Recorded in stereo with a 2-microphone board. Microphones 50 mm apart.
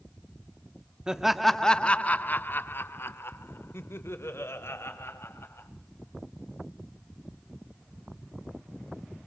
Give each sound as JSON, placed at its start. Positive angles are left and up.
{"t": 1.1, "sound": "laughter", "side_deg": -15, "distance_m": 0.8}